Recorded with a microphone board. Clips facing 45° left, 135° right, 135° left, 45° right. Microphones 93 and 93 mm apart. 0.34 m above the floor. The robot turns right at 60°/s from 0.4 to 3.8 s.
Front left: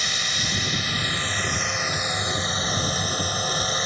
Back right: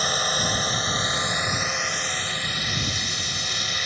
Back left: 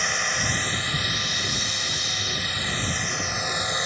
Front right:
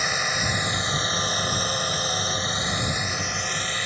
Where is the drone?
125° right; by 3.9 s 80° left.